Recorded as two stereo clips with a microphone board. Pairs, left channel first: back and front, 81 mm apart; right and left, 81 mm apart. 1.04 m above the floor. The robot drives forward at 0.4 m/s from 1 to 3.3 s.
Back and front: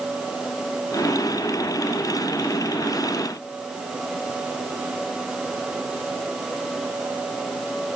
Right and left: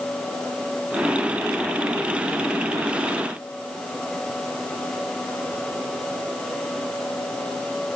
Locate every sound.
Only background noise.